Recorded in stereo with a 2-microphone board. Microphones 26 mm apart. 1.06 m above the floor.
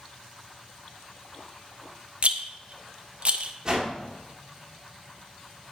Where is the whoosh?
25° right (ahead or behind), 1.8 m.